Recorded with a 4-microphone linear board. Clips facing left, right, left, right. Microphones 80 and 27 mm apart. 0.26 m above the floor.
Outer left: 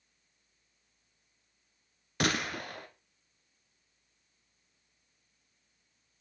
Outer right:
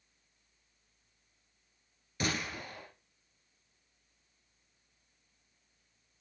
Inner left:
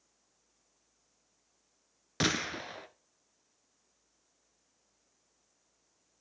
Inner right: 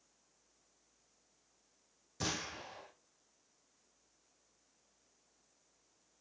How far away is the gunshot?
About 1.1 m.